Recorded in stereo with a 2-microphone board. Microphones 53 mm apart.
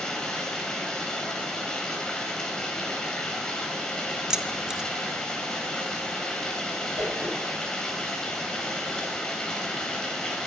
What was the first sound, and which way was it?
Running water, 15° left (ahead or behind).